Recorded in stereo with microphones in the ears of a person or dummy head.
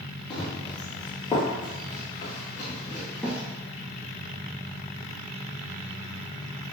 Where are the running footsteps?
25° left (ahead or behind), 2.5 m; by 3.4 s centre (ahead or behind), 1.4 m.